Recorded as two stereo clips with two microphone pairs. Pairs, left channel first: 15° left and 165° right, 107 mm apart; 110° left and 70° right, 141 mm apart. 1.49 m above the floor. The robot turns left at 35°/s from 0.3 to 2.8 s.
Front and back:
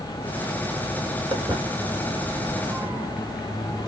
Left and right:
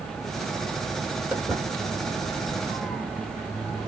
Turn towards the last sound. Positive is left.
turn(degrees=-65)